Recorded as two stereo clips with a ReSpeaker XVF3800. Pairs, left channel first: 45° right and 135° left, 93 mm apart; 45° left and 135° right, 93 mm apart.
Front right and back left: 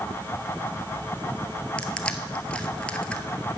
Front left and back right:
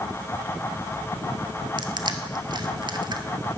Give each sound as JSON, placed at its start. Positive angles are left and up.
{"t": 1.8, "sound": "crushing", "azimuth_deg": -120, "distance_m": 1.0}